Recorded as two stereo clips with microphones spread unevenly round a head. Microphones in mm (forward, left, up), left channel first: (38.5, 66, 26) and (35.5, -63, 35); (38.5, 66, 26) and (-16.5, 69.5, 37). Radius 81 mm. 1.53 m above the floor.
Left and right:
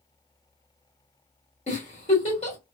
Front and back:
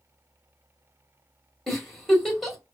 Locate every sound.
1.7 s a giggle: 95° left, 1.5 m